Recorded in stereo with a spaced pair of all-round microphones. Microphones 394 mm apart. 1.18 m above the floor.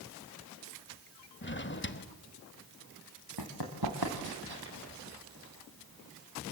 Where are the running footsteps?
65° right (ahead or behind), 4 m; by 4.7 s 70° right (ahead or behind), 3 m.